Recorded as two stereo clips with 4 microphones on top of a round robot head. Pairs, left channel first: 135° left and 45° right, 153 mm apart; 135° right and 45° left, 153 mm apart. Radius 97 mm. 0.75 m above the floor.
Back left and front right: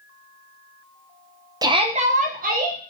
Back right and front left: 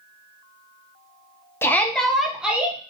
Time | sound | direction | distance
1.6 | a shout | 75° right | 0.7 m